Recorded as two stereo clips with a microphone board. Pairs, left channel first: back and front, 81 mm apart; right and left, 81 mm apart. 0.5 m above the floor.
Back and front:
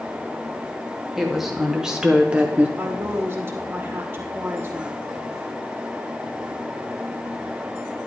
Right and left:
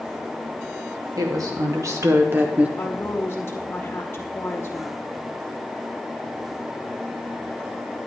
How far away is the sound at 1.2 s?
About 1.8 m.